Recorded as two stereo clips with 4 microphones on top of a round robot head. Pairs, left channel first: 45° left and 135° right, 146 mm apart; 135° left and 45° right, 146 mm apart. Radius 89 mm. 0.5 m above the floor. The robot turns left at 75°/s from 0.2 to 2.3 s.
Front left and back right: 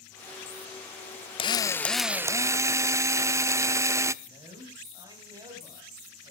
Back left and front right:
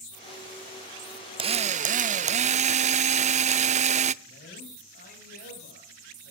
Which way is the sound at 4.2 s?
160° left.